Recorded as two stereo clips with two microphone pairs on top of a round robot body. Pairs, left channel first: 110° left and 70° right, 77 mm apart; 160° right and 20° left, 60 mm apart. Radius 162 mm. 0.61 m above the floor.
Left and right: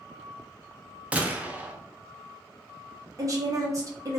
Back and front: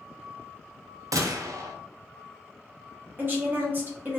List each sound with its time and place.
1.1 s a gunshot: 5° left, 0.5 m
3.2 s a woman speaking: 30° right, 1.2 m